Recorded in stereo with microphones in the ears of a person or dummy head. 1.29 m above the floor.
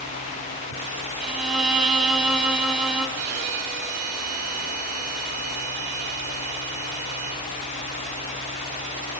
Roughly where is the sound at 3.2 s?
Right.